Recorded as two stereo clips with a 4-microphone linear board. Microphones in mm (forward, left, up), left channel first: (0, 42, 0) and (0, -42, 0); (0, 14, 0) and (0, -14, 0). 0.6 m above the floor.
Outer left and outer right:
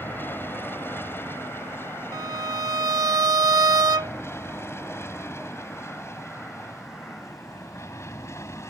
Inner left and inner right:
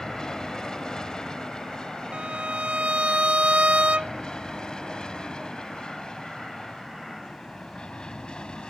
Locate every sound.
0.0 s an aircraft: 25° left (ahead or behind); by 8.7 s 35° left (ahead or behind)
2.1 s a violin: 50° right (ahead or behind)